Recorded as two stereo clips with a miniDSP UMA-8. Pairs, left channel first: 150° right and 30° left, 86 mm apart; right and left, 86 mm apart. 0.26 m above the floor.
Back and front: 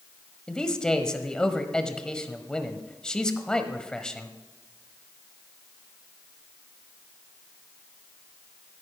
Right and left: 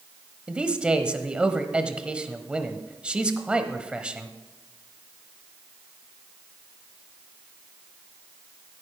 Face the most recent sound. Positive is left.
turn(degrees=145)